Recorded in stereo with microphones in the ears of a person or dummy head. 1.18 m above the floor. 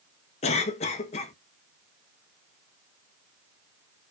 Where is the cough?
30° left (ahead or behind), 0.5 m.